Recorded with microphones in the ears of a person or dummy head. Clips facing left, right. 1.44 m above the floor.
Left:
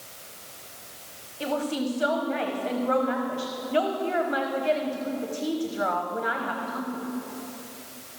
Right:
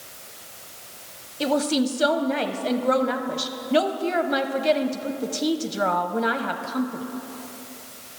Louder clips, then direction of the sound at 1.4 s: Right 6 dB; 45° right (ahead or behind).